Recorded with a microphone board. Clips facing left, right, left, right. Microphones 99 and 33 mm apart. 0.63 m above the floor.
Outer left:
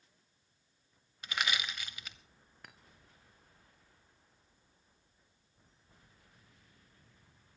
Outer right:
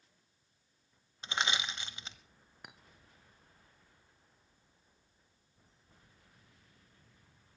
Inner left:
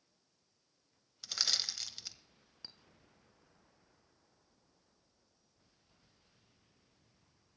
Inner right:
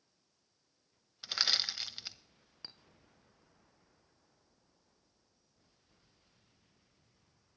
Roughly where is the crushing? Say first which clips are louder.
Outer right 1 dB, inner right 3 dB; right.